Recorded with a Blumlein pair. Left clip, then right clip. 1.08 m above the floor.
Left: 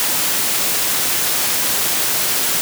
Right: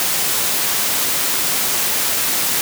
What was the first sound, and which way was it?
Only background noise.